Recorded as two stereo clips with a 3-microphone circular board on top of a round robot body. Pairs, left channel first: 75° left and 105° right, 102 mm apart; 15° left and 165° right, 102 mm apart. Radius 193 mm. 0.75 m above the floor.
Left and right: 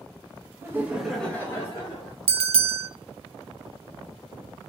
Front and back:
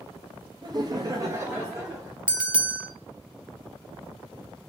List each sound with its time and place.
0.6 s laughter: 155° right, 0.7 m; by 2.2 s 115° left, 1.0 m
2.3 s a bell: 85° right, 0.5 m